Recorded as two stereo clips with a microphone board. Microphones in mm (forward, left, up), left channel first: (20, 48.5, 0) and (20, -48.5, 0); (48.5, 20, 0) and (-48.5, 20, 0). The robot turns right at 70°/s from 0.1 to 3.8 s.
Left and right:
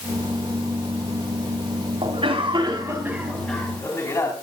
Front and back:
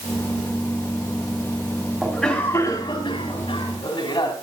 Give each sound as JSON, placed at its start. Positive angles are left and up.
{"t": 2.0, "sound": "a cough", "azimuth_deg": -100, "distance_m": 3.0}